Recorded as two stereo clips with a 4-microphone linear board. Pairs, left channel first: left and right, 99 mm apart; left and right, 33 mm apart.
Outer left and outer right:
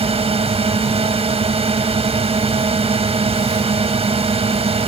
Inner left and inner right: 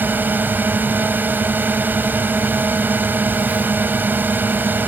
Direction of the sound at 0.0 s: 85° right.